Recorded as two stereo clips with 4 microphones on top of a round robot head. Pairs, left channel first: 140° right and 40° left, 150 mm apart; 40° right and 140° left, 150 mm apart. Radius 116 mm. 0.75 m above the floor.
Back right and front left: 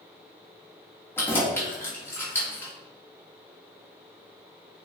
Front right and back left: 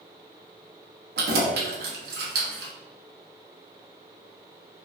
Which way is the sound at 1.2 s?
145° left.